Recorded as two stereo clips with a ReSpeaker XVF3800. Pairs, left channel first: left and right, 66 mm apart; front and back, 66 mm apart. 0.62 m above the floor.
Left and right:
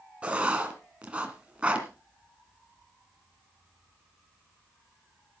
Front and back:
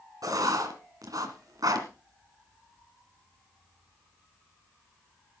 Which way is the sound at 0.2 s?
160° right.